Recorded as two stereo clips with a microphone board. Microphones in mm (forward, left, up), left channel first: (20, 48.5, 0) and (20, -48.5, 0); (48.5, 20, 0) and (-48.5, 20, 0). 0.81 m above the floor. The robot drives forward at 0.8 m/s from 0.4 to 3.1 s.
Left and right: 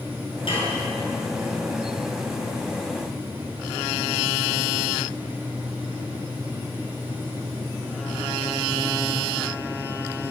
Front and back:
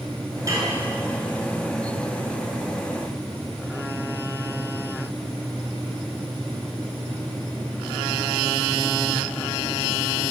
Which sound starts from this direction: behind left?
Dishes clattering, at 0.5 s.